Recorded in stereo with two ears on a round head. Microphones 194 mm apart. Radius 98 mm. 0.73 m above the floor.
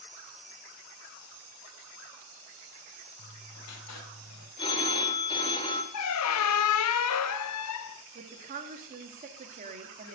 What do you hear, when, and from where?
3.2 s writing: 80° left, 2 m
4.6 s a phone ringing: 25° left (ahead or behind), 1.4 m
5.9 s a squeak: 85° left, 0.5 m
8.2 s a woman speaking: 40° right (ahead or behind), 1.4 m